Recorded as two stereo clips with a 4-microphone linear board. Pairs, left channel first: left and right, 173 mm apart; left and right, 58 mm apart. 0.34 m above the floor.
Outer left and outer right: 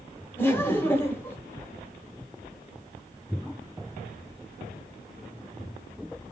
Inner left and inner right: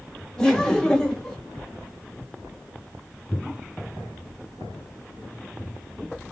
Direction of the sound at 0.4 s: 15° left (ahead or behind).